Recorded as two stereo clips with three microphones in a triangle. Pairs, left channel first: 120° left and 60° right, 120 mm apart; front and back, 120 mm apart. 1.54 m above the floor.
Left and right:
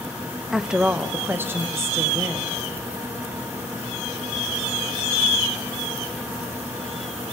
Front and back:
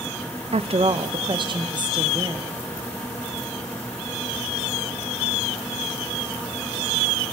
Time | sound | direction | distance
0.5 | a woman speaking | 150° right | 0.6 m